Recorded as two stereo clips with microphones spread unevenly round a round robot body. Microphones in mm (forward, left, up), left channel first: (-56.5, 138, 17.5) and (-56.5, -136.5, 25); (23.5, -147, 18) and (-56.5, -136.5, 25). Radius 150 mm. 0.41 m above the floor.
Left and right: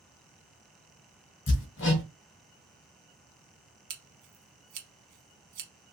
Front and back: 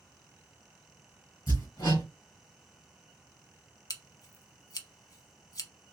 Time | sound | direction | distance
1.5 | hammering | 40° left | 1.0 m
3.9 | scissors | 55° right | 0.9 m